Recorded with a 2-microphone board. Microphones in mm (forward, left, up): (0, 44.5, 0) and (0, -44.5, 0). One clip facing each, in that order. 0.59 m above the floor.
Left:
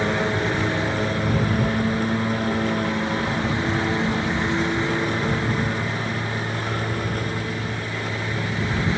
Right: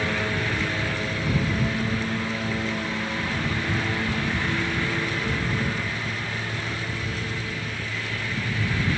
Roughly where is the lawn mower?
Left.